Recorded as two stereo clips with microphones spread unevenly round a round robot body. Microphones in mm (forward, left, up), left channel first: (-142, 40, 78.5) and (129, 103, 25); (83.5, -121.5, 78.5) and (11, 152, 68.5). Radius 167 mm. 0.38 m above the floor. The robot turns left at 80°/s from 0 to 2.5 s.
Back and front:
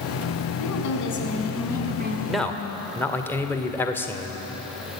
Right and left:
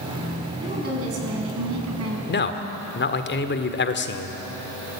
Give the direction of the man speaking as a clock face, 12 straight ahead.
2 o'clock.